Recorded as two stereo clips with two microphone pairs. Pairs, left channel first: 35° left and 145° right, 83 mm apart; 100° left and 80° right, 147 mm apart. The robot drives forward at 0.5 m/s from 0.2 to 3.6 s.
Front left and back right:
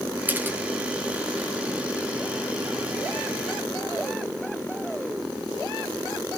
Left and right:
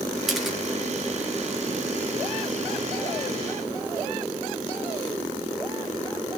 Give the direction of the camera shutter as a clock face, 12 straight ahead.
6 o'clock.